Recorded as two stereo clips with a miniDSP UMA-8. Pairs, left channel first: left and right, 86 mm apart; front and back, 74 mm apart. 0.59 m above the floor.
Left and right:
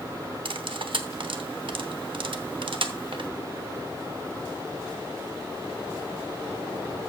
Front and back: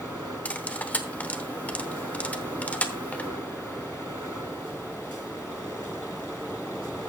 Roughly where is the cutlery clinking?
Right.